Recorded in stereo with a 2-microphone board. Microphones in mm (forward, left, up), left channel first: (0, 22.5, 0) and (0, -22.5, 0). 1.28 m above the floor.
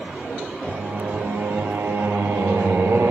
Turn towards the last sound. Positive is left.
turn(degrees=-70)  # may be behind; listen again after turning